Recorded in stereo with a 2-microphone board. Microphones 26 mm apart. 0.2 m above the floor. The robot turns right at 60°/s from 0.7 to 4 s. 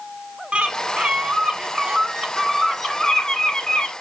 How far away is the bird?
About 0.8 m.